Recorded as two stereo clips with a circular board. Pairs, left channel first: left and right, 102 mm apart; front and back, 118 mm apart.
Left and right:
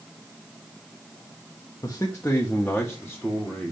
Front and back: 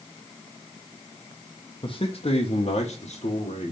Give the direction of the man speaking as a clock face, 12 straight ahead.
11 o'clock.